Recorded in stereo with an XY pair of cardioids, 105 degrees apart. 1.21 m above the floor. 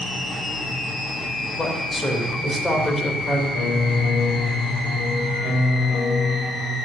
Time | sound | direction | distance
1.6 | a man speaking | 10° left | 4 m
3.5 | a piano | 70° left | 7 m